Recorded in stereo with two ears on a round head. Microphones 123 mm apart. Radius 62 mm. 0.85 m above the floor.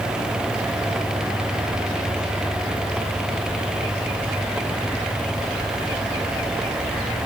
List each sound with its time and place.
Only background noise.